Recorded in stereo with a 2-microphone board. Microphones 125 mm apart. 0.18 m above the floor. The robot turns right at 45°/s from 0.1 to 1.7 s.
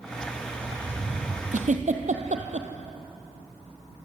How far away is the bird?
About 7.5 m.